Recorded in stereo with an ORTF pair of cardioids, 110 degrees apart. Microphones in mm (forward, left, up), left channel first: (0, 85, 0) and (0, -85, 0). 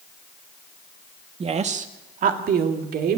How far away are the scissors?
No scissors in this recording.